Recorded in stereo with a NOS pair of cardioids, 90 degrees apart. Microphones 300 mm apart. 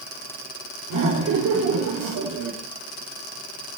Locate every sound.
0.9 s laughter: 65° right, 3.5 m